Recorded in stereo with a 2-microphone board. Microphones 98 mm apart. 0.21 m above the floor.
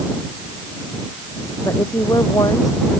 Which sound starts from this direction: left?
A woman speaking, at 1.6 s.